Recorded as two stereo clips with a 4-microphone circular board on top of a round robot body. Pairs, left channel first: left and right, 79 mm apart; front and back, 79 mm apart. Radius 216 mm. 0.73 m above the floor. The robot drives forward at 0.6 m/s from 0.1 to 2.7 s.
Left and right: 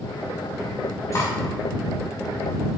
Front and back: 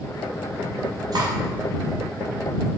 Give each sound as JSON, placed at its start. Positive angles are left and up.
{"t": 1.1, "sound": "cutlery clinking", "azimuth_deg": 140, "distance_m": 2.0}